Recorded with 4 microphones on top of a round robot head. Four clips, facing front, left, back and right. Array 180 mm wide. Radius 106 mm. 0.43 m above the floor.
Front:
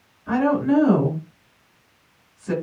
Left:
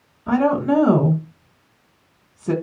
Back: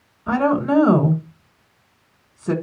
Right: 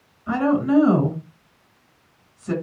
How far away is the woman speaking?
About 3.5 m.